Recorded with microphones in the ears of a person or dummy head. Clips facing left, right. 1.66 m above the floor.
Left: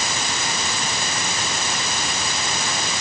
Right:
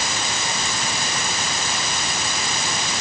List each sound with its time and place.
Only background noise.